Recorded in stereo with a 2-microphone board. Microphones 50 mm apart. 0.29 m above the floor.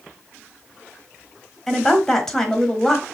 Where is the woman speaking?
10° left (ahead or behind), 1.2 m.